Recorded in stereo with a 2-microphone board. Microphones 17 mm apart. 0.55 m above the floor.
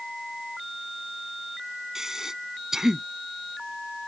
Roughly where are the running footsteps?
I don't hear running footsteps.